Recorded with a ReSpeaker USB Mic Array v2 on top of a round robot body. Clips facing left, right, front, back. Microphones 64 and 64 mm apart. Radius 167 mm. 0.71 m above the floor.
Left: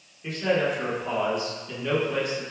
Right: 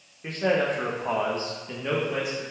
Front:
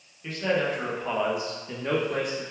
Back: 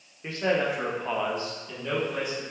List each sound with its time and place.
0.2 s a man speaking: 125° right, 1.3 m; by 2.4 s 10° right, 1.2 m